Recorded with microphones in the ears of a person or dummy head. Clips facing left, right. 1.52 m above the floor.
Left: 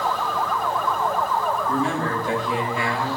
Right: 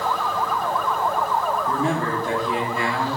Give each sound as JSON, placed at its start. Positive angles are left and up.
{"t": 1.7, "sound": "a man speaking", "side_deg": -45, "distance_m": 4.0}